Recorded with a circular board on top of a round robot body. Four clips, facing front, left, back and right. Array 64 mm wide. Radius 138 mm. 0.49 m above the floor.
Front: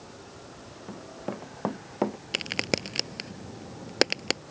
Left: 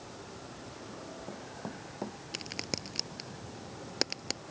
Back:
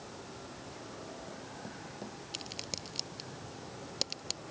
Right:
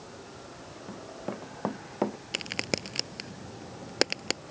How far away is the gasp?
I don't hear a gasp.